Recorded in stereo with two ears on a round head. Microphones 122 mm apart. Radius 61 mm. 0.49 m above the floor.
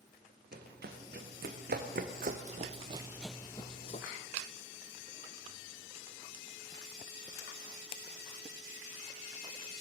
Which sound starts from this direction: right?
Running footsteps, at 0.5 s.